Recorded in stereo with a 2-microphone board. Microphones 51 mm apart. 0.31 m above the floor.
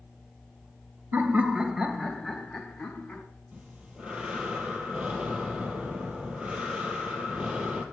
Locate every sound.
1.1 s laughter: 40° right (ahead or behind), 1.7 m; by 3.2 s 25° left (ahead or behind), 3 m
3.5 s breathing: 20° right (ahead or behind), 2.5 m